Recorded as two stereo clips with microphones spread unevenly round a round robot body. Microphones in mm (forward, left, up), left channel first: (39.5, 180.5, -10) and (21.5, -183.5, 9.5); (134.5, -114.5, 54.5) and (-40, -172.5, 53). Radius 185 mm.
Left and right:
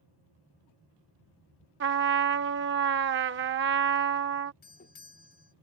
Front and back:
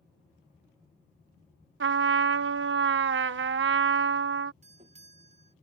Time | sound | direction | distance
1.8 | a trumpet | 155° right | ?
4.6 | a doorbell | 150° left | ?